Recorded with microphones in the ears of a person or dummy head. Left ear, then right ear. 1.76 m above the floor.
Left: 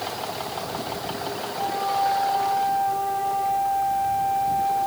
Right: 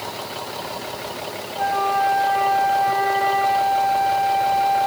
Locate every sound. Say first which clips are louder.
1.6 s a flute: right 5 dB; 60° right (ahead or behind), 0.8 m